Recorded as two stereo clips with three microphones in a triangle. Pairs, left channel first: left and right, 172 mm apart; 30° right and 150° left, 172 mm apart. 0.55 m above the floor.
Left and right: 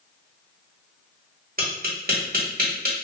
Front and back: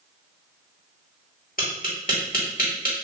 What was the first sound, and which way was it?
Tapping, 60° right.